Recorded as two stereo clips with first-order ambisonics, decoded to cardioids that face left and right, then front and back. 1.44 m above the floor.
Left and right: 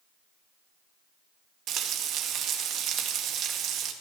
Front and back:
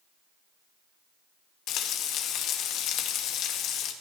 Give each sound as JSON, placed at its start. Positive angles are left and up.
{"t": 1.7, "sound": "frying", "azimuth_deg": -40, "distance_m": 2.0}